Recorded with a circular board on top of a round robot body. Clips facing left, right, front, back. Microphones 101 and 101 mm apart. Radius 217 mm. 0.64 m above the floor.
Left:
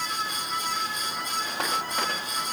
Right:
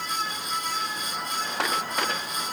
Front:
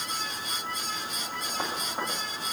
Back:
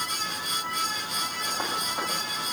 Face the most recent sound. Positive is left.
No sound to turn to.